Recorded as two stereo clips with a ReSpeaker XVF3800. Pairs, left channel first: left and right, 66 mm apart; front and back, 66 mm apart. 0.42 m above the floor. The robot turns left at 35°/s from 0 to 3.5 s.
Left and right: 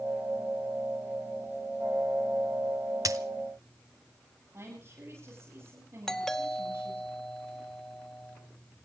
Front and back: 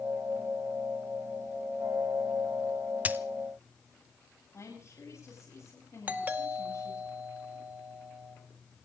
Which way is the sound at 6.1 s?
165° left.